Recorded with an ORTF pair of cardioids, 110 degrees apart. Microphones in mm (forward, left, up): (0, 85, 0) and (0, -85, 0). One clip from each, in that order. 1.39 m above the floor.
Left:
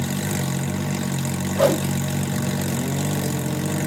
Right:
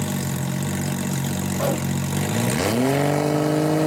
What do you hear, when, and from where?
1.6 s a whoosh: 30° left, 0.7 m